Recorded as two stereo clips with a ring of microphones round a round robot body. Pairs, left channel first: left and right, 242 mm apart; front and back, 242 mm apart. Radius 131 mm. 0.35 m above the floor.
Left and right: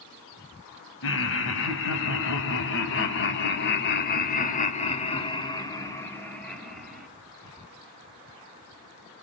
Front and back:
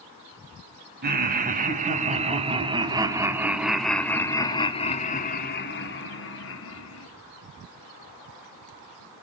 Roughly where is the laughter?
Behind left.